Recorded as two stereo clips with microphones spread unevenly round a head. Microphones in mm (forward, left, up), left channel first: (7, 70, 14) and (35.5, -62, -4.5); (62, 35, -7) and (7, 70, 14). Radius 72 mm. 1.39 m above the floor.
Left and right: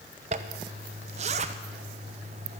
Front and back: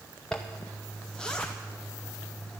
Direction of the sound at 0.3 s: 105° right.